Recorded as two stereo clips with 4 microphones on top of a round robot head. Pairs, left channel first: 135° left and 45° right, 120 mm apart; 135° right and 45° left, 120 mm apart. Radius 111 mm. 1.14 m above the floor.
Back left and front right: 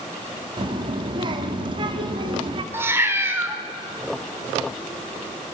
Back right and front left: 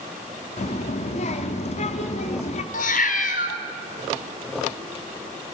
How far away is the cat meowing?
About 1.3 m.